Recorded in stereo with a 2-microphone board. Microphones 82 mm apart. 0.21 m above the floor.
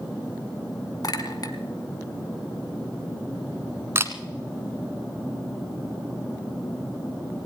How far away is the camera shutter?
About 1.4 m.